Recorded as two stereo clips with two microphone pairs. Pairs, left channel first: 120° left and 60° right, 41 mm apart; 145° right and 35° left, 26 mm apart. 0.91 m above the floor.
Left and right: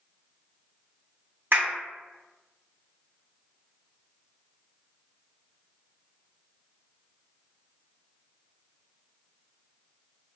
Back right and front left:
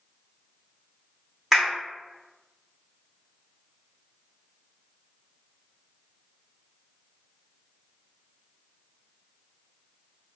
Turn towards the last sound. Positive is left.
turn(degrees=-40)